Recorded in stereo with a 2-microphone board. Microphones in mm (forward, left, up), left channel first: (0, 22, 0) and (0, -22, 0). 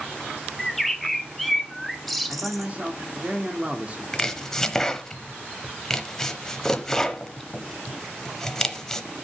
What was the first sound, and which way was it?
A bird, centre (ahead or behind).